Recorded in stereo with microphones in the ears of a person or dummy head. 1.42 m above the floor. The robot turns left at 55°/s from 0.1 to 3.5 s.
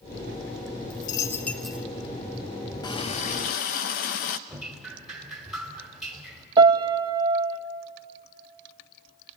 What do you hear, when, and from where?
0.9 s a dropped coin: 30° left (ahead or behind), 1.5 m; by 1.9 s 10° right (ahead or behind), 1.5 m
2.8 s a running tap: 155° left, 0.8 m; by 4.4 s 120° left, 0.8 m
4.5 s dripping: 5° right (ahead or behind), 3 m
6.6 s a piano: 20° right (ahead or behind), 0.8 m